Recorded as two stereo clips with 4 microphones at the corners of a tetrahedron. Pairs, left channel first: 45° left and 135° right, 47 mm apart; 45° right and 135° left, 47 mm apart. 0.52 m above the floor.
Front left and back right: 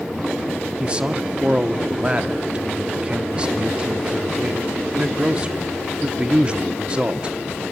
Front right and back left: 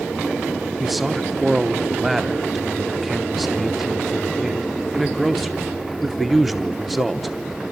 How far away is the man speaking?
About 0.8 m.